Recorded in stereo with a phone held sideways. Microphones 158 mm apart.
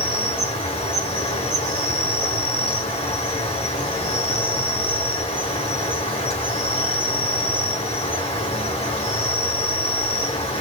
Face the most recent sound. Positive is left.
turn(degrees=40)  # may be behind; listen again after turning